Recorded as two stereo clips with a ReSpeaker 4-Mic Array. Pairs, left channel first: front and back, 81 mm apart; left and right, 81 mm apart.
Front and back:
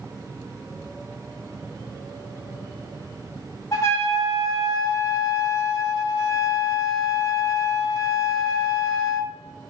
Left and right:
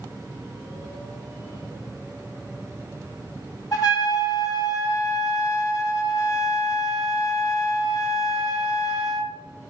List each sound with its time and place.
3.7 s a trumpet: 50° left, 2 m